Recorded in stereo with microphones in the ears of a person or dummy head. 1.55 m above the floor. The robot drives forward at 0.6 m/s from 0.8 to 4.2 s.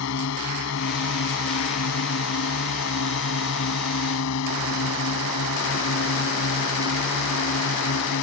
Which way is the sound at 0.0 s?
70° left (ahead or behind).